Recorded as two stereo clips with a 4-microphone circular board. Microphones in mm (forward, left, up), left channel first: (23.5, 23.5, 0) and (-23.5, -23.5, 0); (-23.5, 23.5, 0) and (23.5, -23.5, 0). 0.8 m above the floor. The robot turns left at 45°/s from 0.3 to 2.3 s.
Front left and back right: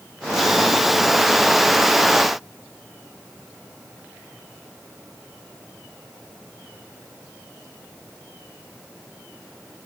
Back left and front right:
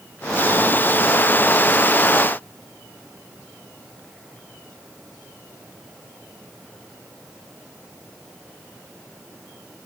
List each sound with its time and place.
Only background noise.